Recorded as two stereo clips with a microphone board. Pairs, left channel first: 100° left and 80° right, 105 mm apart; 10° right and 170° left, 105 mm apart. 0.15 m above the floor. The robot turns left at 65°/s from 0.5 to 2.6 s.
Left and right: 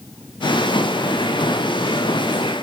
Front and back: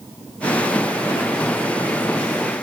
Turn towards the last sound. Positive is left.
No sound to turn to.